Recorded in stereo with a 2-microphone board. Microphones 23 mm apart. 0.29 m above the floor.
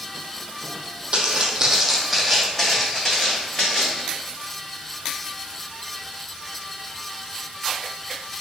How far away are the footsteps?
About 0.6 m.